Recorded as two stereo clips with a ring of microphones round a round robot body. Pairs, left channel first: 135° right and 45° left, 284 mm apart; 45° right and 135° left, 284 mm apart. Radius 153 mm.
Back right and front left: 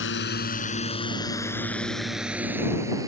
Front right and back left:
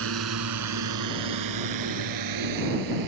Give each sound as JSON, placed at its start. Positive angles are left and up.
{"t": 0.0, "sound": "a drone", "azimuth_deg": 175}